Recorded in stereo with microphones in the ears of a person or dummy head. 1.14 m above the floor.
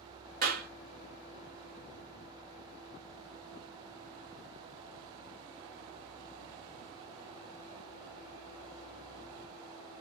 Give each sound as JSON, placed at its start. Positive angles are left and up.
{"t": 0.4, "sound": "a clap", "side_deg": -65, "distance_m": 1.4}